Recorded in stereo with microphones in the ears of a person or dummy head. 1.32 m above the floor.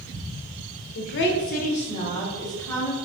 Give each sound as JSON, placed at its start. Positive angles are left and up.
{"t": 0.9, "sound": "a woman speaking", "side_deg": 75, "distance_m": 0.8}